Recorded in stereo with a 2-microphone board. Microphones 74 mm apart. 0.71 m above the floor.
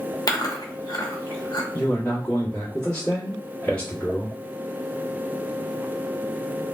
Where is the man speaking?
25° left (ahead or behind), 1.8 m.